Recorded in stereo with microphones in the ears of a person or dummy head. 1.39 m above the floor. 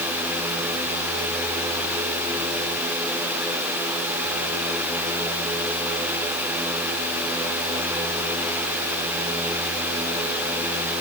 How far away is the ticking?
No ticking in this recording.